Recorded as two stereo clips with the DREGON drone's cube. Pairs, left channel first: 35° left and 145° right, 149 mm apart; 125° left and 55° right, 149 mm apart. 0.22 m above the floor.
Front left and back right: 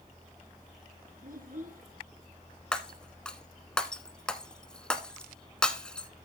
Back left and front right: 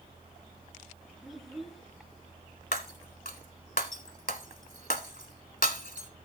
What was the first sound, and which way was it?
A child speaking, 145° right.